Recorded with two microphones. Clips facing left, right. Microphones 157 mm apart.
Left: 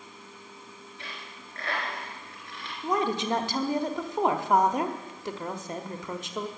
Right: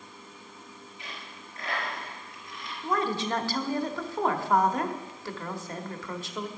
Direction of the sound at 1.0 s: 70° left (ahead or behind).